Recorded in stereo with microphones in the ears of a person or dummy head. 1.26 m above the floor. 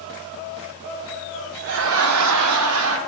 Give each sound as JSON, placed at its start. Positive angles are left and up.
{"t": 1.6, "sound": "laughter", "side_deg": -50, "distance_m": 0.6}